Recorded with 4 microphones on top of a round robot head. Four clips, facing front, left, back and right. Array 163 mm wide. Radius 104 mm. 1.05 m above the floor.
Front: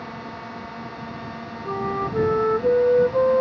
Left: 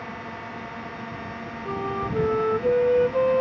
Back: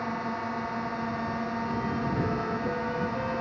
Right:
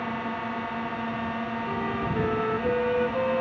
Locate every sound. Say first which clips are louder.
0.0 s a drone: right 5 dB, back 3 dB; 125° right
1.6 s a flute: left 5 dB, front 4 dB; 25° left